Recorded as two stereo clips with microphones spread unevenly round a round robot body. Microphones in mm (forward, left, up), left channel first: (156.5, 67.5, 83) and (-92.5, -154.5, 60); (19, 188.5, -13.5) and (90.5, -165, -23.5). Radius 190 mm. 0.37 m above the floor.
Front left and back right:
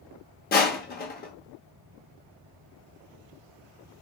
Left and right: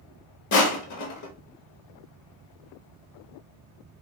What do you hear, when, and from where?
0.5 s crushing: 95° left, 0.9 m